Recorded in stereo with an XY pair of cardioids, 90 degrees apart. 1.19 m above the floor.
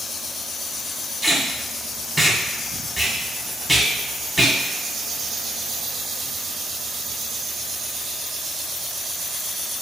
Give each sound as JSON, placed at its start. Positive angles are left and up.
{"t": 1.2, "sound": "tape being pulled", "azimuth_deg": 0, "distance_m": 0.7}